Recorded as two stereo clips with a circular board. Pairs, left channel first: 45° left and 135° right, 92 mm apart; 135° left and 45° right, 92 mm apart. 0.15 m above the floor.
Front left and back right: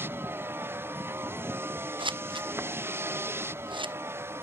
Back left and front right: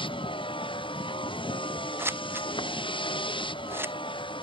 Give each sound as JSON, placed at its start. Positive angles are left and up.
{"t": 0.0, "sound": "a vehicle", "azimuth_deg": 160}
{"t": 2.0, "sound": "scissors", "azimuth_deg": -110}